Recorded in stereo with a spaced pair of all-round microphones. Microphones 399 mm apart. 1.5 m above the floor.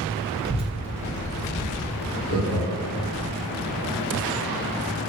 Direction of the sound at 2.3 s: 80° left.